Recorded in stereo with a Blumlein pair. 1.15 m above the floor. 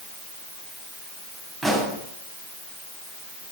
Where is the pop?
Straight ahead, 7 m.